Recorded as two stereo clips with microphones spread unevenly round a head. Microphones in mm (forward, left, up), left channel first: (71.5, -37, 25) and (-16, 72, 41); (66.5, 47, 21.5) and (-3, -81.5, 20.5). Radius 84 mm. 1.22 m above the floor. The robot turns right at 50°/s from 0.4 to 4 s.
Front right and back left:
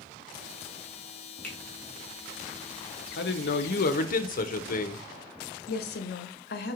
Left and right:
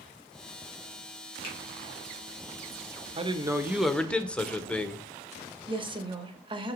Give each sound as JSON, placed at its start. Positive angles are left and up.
{"t": 1.4, "sound": "a finger snap", "azimuth_deg": 30, "distance_m": 2.5}
{"t": 3.2, "sound": "a man speaking", "azimuth_deg": -65, "distance_m": 0.9}
{"t": 5.7, "sound": "a woman speaking", "azimuth_deg": -60, "distance_m": 1.2}